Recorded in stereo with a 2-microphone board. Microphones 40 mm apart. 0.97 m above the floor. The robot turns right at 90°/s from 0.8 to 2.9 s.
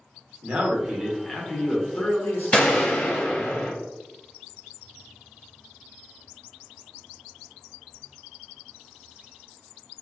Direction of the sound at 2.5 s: 35° left.